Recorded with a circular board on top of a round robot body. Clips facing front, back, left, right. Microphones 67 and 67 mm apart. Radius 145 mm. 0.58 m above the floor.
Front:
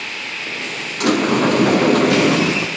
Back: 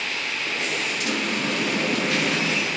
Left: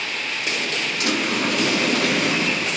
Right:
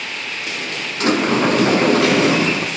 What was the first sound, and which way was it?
A sliding door, 30° right.